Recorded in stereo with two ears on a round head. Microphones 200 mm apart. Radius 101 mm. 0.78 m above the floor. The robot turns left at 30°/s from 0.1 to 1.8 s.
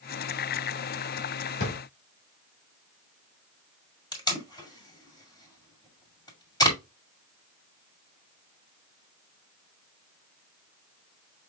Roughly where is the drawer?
Left.